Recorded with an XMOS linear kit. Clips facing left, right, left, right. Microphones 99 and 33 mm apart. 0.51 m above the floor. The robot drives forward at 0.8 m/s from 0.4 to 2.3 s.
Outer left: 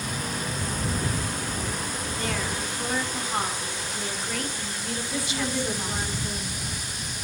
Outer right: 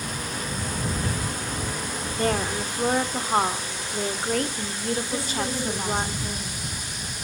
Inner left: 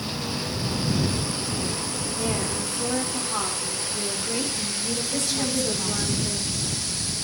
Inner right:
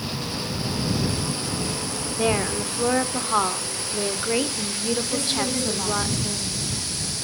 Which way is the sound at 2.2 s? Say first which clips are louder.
Outer right 7 dB, inner right 6 dB; 45° right (ahead or behind).